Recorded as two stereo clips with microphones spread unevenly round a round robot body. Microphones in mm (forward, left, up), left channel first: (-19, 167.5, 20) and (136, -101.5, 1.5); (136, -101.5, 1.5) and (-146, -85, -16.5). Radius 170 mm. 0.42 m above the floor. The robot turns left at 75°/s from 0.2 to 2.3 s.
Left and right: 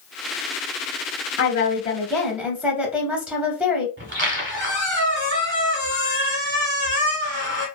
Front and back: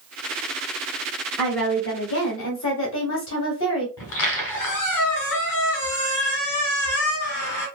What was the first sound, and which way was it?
A woman speaking, 90° left.